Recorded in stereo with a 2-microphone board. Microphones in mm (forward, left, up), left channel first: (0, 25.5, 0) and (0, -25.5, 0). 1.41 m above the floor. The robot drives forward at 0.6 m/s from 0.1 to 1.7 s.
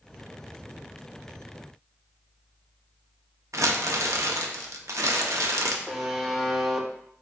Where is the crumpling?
80° right, 0.6 m.